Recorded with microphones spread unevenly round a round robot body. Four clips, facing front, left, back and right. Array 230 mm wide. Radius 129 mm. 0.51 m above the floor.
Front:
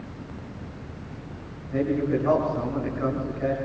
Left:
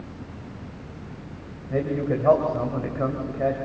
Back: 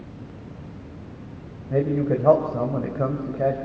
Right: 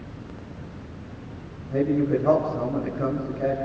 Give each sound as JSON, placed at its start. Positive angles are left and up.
{"t": 1.7, "sound": "a man speaking", "azimuth_deg": 160, "distance_m": 3.0}